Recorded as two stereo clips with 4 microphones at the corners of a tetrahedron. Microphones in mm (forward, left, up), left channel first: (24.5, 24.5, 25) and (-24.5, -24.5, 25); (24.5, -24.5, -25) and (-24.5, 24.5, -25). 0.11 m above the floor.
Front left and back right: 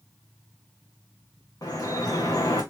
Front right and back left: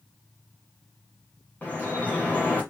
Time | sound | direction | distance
1.6 | dripping | 20° left | 3.5 m